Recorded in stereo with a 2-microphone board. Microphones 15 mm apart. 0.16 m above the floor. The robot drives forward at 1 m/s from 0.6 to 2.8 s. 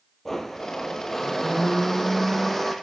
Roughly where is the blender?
Left.